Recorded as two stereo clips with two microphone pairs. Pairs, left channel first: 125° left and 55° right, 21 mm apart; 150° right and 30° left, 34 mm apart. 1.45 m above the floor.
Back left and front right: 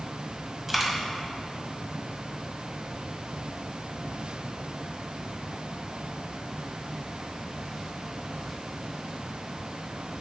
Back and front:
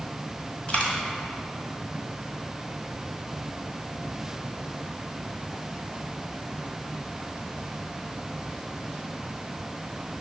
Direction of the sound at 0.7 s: 150° right.